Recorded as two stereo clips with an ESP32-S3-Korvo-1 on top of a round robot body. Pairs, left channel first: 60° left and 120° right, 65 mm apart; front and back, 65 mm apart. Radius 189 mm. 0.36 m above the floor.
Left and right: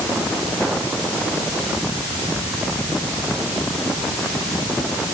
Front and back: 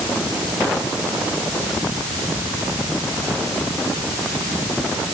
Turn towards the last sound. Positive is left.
No sound to turn to.